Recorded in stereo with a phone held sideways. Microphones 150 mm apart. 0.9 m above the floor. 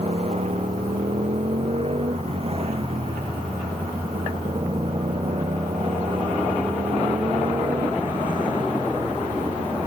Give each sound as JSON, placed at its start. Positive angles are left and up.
{"t": 0.0, "sound": "a motorcycle", "side_deg": -45}